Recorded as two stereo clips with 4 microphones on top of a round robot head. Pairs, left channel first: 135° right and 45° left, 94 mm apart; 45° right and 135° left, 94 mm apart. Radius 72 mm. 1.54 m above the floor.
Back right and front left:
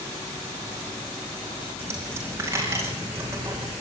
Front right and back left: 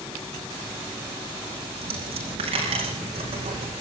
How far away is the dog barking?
No dog barking in this recording.